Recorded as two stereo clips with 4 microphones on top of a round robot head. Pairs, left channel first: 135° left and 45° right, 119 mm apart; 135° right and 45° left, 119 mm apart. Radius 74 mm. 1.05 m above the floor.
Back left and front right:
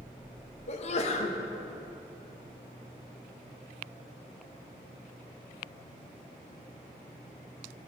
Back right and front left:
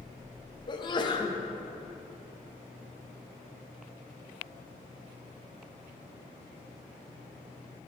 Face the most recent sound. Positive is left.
turn(degrees=170)